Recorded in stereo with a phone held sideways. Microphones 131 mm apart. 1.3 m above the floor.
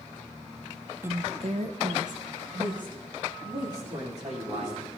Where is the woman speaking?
15° right (ahead or behind), 0.7 m; by 4.8 s 80° right, 4 m.